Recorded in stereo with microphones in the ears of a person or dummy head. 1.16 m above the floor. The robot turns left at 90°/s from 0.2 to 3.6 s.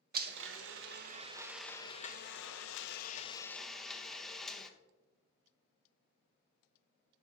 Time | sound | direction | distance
0.1 | a blender | 55° right | 0.7 m